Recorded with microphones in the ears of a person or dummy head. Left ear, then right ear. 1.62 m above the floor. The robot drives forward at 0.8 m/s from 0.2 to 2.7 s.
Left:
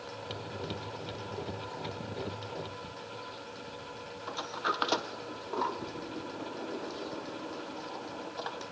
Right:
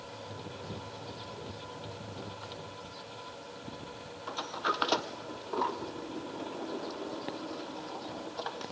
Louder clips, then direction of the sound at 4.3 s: Right 1 dB; centre (ahead or behind).